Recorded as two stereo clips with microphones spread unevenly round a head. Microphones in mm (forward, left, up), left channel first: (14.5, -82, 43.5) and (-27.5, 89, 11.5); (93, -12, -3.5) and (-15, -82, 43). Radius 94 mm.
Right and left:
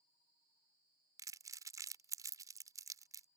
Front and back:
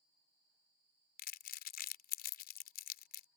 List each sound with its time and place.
1.2 s crumpling: 25° left